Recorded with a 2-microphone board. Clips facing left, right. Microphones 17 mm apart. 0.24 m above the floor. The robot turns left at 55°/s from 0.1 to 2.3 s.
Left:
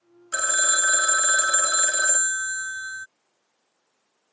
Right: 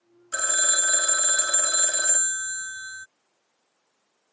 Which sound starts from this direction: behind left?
A phone ringing, at 0.3 s.